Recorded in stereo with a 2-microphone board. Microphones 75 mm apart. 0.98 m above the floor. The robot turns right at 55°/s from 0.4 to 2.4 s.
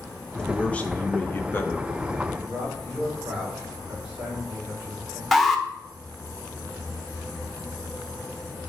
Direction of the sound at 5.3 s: Centre (ahead or behind).